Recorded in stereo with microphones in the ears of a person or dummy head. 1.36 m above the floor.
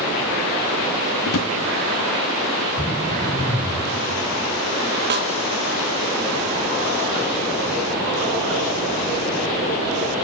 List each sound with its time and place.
1.2 s a drawer: 70° left (ahead or behind), 1.6 m
2.8 s throat clearing: 15° left (ahead or behind), 7 m
5.1 s a snare drum: 55° right (ahead or behind), 1.9 m